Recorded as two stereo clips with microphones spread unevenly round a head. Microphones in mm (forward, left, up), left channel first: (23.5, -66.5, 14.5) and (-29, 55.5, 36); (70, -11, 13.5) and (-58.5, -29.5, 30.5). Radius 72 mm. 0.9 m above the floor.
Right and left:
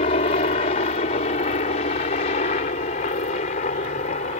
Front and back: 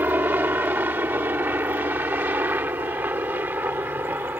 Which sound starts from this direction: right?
A helicopter, at 0.0 s.